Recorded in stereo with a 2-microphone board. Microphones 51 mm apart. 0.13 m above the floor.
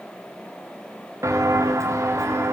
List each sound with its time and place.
1.2 s footsteps: 90° right, 1.6 m; by 2.5 s 75° right (ahead or behind), 2 m